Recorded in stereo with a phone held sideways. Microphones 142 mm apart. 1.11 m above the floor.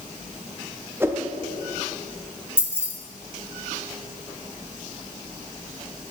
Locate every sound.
1.0 s a whoosh: 15° right (ahead or behind), 0.5 m
2.6 s keys jangling: 15° left (ahead or behind), 0.9 m